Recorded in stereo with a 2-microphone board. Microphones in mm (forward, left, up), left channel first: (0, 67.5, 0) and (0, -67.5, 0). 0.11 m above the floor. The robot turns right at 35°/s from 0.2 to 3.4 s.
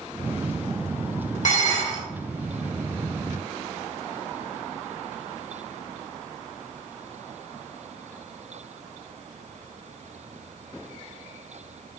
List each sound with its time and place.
1.4 s dishes clattering: 70° left (ahead or behind), 2.5 m; by 2.0 s 65° left (ahead or behind), 2.5 m